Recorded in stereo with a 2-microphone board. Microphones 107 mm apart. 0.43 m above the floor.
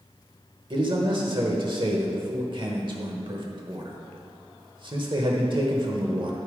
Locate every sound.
0.7 s a man speaking: 50° right (ahead or behind), 1.1 m